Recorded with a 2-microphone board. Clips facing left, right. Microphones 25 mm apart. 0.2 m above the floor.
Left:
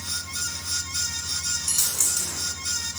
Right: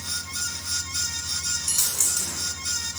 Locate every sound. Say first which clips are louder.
1.7 s a dropped coin: even; 5° right (ahead or behind), 1.1 m